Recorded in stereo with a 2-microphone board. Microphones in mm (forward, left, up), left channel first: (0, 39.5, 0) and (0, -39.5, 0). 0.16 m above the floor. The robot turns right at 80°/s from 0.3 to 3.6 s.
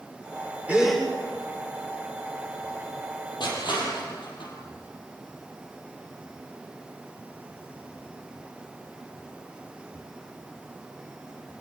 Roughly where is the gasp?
Centre.